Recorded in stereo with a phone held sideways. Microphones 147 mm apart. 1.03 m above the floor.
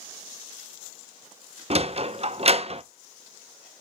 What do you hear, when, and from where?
1.7 s a sliding door: 45° right (ahead or behind), 0.5 m